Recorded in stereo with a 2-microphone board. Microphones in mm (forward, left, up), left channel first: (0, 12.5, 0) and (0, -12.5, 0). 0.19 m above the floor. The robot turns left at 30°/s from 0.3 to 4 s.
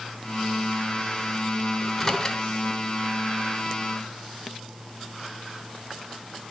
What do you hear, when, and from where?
1.8 s a microwave: 5° left (ahead or behind), 0.9 m; by 2.4 s 15° left (ahead or behind), 0.9 m